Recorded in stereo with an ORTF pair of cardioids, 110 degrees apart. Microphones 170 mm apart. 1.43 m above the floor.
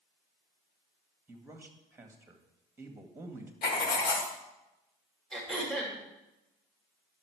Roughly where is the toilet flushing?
I don't hear a toilet flushing.